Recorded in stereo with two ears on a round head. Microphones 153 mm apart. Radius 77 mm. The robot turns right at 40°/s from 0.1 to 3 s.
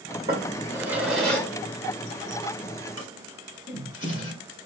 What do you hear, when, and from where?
0.3 s a drawer: 35° right (ahead or behind), 1.7 m; by 4.3 s 75° left (ahead or behind), 1.7 m